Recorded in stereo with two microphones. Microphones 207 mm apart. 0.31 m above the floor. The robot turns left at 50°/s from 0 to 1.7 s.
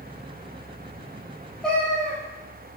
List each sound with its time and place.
1.6 s a cat meowing: 5° left (ahead or behind), 0.8 m